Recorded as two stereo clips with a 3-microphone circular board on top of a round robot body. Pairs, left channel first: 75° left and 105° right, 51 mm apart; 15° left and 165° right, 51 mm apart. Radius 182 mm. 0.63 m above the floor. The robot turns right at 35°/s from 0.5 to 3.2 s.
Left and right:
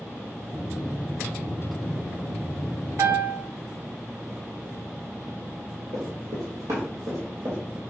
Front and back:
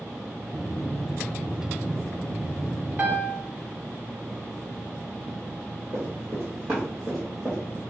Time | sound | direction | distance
3.0 | a piano | 110° right | 0.8 m
5.9 | running footsteps | 110° right | 1.2 m